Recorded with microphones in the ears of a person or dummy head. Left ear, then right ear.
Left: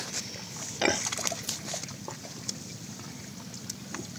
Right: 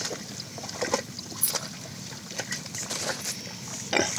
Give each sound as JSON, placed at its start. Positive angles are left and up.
{"t": 1.4, "sound": "keys jangling", "side_deg": -65, "distance_m": 1.1}